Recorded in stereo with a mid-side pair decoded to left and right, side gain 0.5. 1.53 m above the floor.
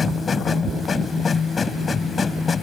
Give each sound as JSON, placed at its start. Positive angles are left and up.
{"t": 0.0, "sound": "a machine running", "azimuth_deg": 35}